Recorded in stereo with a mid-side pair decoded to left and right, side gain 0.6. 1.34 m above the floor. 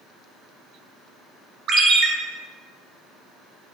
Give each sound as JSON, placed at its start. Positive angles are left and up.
{"t": 1.7, "sound": "a ringtone", "azimuth_deg": -50, "distance_m": 0.9}